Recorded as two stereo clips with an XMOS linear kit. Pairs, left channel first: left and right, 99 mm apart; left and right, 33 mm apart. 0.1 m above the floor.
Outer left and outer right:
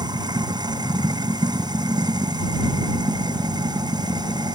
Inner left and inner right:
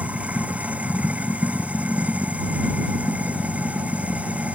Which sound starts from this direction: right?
Running water, at 0.0 s.